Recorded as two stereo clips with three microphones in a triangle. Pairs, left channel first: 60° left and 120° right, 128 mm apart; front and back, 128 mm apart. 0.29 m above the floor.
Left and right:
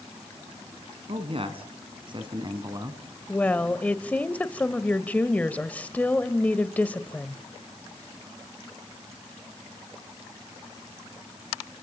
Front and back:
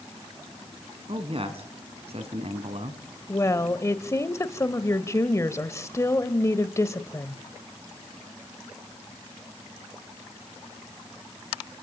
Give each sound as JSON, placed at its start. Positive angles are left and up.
{"t": 1.1, "sound": "a man speaking", "azimuth_deg": -150, "distance_m": 2.5}
{"t": 3.3, "sound": "a woman speaking", "azimuth_deg": 0, "distance_m": 1.1}